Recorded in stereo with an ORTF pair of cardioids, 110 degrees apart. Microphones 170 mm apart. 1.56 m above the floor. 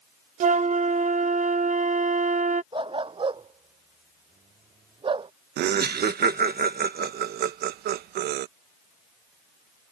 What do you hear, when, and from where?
0.4 s a flute: 50° right
2.7 s a dog barking: 30° right
5.6 s laughter: 70° right